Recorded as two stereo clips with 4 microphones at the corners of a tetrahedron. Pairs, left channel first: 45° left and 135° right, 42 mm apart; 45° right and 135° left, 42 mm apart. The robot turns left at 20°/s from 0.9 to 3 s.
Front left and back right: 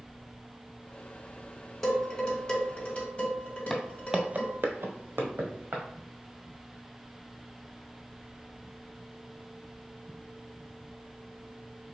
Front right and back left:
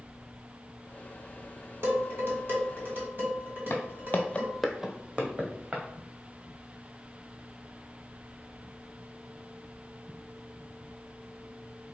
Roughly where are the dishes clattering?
Behind left.